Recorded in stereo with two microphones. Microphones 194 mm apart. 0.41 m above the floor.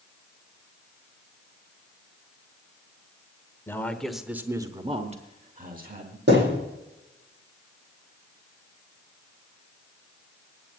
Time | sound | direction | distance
3.7 | a man speaking | 10° left (ahead or behind) | 1.0 m
6.3 | a thud | 60° right (ahead or behind) | 8 m